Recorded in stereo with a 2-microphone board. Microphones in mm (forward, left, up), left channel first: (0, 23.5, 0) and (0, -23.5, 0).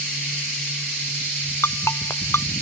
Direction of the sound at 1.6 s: 75° left (ahead or behind).